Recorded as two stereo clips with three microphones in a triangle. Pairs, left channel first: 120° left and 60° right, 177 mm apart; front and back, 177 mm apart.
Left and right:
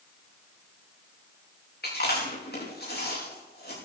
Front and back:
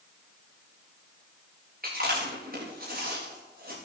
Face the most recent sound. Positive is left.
turn(degrees=150)